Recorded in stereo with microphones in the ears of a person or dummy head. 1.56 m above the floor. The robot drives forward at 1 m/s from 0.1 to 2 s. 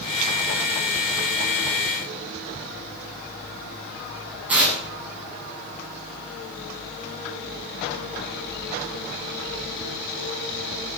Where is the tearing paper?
Centre (ahead or behind), 7 m.